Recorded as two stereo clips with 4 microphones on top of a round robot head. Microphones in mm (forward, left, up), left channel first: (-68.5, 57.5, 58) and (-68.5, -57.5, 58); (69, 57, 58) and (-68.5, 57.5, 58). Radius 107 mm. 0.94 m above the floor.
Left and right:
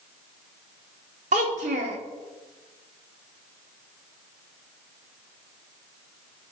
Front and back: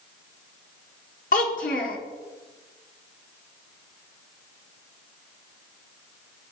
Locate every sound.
1.3 s a child speaking: 45° right, 1.1 m